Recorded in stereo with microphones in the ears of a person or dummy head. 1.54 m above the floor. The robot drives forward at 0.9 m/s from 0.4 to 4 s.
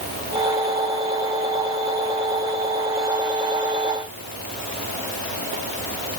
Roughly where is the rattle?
No rattle in this recording.